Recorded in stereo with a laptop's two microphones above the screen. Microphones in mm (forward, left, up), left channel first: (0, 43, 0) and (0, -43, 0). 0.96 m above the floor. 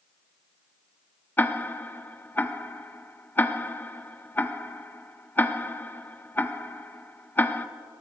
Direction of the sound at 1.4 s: 20° left (ahead or behind).